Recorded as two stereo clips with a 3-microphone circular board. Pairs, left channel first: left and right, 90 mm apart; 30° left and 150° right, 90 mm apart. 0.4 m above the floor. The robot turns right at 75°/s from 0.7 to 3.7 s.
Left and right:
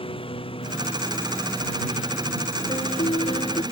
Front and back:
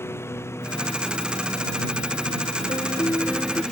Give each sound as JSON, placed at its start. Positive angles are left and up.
{"t": 0.0, "sound": "a lawn mower", "azimuth_deg": 95}
{"t": 2.7, "sound": "a piano", "azimuth_deg": 60}